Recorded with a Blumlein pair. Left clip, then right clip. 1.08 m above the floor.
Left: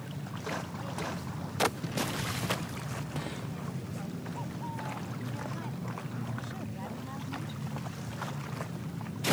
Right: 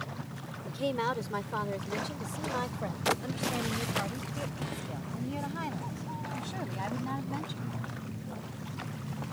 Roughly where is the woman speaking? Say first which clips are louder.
Right 7 dB; ahead right.